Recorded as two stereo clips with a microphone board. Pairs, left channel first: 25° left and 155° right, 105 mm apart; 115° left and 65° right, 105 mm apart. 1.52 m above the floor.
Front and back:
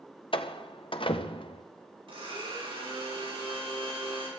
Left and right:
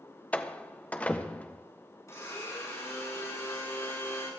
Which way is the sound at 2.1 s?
175° left.